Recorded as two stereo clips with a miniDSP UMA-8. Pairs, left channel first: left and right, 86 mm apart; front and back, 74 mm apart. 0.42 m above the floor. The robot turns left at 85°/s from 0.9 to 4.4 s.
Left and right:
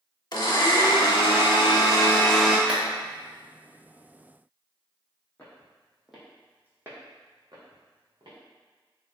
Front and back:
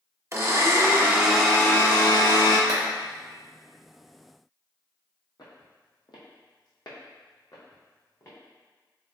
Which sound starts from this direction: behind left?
A blender, at 0.3 s.